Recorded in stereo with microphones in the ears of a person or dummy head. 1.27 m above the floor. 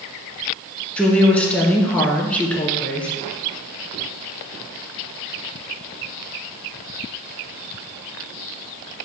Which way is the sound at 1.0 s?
5° left (ahead or behind).